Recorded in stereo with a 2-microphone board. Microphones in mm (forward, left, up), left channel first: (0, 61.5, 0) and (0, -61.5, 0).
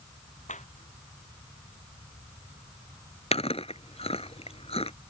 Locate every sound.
0.5 s a clap: 80° left
3.3 s chewing: 55° left (ahead or behind)